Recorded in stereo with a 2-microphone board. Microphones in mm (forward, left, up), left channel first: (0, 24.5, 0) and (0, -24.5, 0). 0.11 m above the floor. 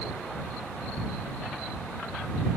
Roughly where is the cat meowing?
No cat meowing in this recording.